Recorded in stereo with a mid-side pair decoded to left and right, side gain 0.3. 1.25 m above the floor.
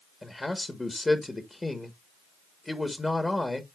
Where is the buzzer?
No buzzer in this recording.